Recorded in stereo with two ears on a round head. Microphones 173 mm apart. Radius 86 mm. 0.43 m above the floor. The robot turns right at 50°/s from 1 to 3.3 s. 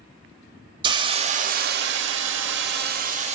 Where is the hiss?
155° right, 0.8 m; by 3.4 s 40° right, 0.8 m.